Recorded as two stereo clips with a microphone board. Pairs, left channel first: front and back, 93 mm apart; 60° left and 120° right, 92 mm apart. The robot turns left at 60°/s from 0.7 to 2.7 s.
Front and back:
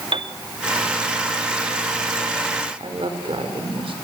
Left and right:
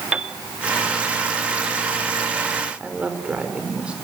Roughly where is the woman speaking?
Behind.